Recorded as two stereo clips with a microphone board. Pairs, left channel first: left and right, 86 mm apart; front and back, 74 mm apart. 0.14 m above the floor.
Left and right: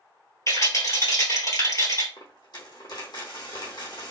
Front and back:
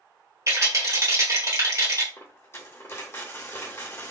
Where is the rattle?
135° left, 1.7 m.